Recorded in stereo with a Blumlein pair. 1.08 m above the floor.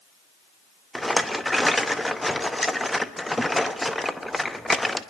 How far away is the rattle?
About 0.9 m.